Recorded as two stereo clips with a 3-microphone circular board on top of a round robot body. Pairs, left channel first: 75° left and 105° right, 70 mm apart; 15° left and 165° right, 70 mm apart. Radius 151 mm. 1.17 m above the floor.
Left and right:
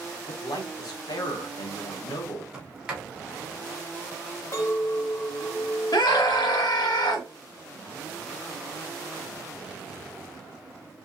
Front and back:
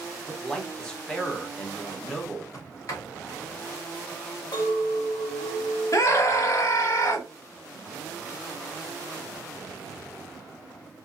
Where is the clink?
25° left, 0.9 m.